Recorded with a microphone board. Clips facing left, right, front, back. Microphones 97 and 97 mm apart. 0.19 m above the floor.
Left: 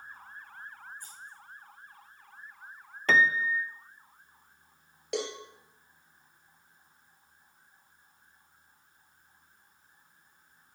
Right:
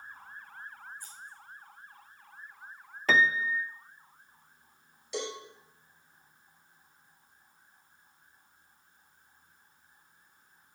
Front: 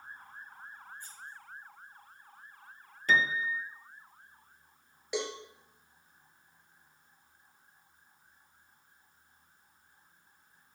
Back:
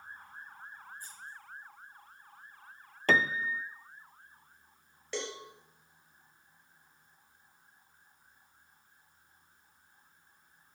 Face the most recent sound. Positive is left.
turn(degrees=75)